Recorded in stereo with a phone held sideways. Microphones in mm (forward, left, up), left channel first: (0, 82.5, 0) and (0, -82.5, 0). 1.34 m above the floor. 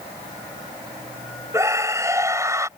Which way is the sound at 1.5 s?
20° right (ahead or behind).